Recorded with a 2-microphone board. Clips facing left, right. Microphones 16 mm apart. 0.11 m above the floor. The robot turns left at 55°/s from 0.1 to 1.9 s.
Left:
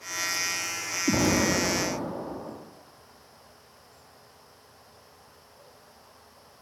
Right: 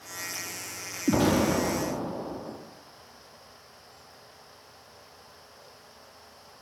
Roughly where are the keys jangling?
I don't hear keys jangling.